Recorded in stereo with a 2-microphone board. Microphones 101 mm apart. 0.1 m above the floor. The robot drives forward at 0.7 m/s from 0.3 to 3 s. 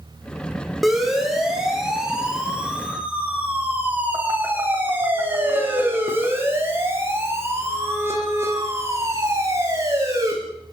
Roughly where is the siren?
Centre.